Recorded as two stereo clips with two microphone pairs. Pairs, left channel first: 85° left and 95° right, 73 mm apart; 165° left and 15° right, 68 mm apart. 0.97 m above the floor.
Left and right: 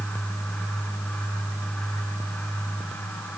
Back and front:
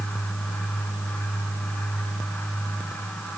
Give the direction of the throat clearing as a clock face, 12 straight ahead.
I don't hear throat clearing.